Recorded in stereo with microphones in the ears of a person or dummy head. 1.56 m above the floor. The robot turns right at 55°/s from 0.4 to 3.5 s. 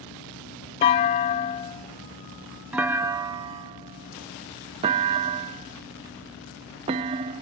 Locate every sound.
0.8 s a clunk: 30° left (ahead or behind); by 7.4 s 20° right (ahead or behind)